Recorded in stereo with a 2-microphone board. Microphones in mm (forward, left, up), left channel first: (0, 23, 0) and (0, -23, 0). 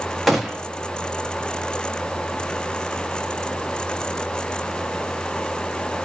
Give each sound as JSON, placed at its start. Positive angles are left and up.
{"t": 0.3, "sound": "a gunshot", "side_deg": 0, "distance_m": 1.2}